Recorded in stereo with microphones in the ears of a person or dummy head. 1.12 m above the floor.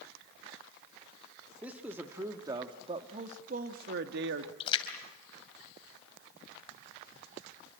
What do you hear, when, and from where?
1.6 s a man speaking: 5° right (ahead or behind), 2.0 m; by 4.5 s 70° right (ahead or behind), 1.7 m
4.6 s a splash: 30° left (ahead or behind), 3 m